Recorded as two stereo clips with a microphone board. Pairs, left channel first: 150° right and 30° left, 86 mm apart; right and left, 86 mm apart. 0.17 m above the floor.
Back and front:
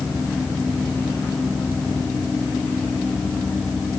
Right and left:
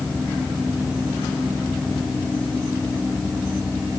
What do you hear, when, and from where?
Only background noise.